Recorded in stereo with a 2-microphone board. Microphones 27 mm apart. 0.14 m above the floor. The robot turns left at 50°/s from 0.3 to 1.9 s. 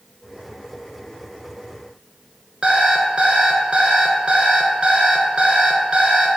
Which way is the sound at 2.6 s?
40° right (ahead or behind).